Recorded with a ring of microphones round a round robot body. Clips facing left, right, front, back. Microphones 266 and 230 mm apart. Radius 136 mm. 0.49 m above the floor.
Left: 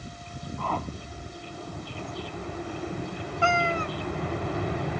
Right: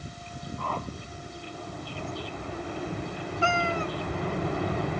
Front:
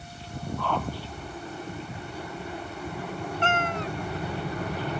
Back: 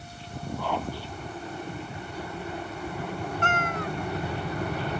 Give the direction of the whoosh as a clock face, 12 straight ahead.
9 o'clock.